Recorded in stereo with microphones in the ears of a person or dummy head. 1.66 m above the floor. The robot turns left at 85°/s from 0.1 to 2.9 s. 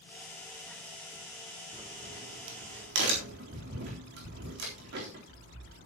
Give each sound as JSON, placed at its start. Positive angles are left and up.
{"t": 1.7, "sound": "a crack", "side_deg": -25, "distance_m": 3.5}